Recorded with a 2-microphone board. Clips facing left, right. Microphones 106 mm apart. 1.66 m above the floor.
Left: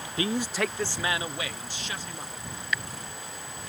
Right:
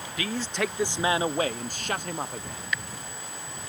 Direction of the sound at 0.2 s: 30° left (ahead or behind).